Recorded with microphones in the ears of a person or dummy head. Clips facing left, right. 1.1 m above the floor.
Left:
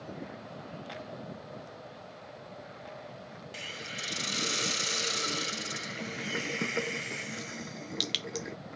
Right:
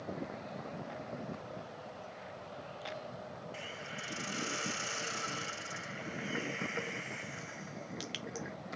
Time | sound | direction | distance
3.5 | a hiss | 45° left (ahead or behind) | ?